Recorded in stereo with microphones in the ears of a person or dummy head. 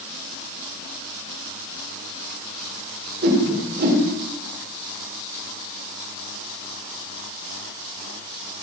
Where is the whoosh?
50° right (ahead or behind), 2.5 m.